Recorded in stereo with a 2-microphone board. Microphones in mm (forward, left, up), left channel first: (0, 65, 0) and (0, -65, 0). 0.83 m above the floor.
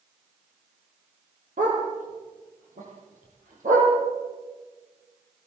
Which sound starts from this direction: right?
A dog barking, at 1.6 s.